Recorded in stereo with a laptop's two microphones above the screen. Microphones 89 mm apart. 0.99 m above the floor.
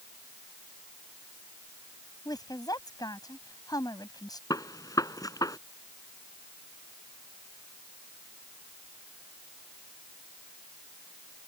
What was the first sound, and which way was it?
A woman speaking, 45° left (ahead or behind).